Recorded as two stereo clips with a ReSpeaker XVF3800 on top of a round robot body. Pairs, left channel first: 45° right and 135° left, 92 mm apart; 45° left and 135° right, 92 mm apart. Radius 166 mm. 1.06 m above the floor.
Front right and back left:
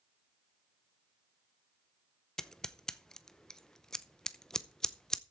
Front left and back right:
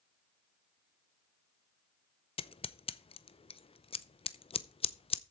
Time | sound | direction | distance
2.4 | scissors | 40° left | 0.8 m